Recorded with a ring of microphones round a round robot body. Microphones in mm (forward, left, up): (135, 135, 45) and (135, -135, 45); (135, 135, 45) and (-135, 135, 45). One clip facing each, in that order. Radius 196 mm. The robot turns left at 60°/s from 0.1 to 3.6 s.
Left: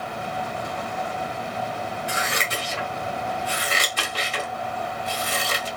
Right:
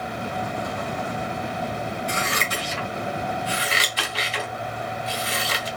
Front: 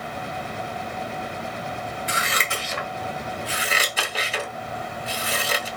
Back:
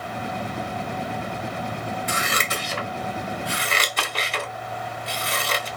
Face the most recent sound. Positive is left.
turn(degrees=80)